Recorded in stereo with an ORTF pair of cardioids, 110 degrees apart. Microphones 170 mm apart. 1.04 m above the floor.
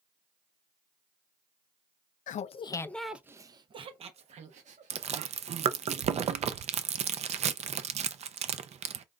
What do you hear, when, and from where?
2.3 s laughter: 50° left, 0.5 m; by 5.2 s 50° right, 1.5 m
4.9 s chewing: 40° right, 0.6 m